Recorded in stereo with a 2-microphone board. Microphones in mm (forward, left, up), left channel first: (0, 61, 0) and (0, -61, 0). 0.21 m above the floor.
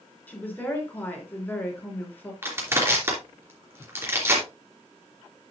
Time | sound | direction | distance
0.3 | a woman speaking | 15° left (ahead or behind) | 3.5 m
2.4 | crushing | 20° right (ahead or behind) | 3.5 m